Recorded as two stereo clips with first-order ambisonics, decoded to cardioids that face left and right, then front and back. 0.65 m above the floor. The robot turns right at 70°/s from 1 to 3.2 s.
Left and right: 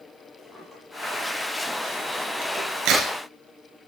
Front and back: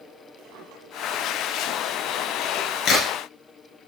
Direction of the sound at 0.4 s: 175° right.